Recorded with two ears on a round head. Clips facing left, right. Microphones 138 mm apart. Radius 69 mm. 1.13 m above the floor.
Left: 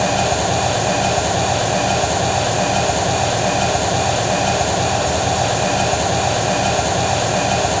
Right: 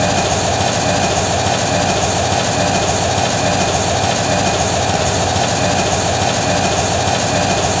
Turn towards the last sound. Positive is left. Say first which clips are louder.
# right 2 dB
turn(degrees=-75)  # may be behind; listen again after turning